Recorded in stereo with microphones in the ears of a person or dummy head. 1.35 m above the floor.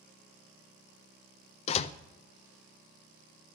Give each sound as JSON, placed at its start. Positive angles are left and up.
{"t": 1.7, "sound": "a door slam", "side_deg": 35, "distance_m": 0.6}